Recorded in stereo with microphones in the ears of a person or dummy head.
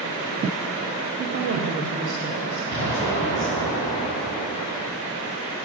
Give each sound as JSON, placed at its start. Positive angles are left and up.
{"t": 1.2, "sound": "a woman speaking", "side_deg": -45, "distance_m": 0.8}
{"t": 2.7, "sound": "an explosion", "side_deg": 25, "distance_m": 2.5}